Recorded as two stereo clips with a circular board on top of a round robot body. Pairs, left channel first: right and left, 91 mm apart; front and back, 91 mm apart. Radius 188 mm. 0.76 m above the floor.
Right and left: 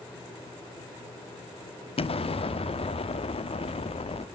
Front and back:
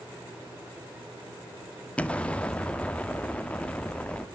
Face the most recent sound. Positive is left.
turn(degrees=-75)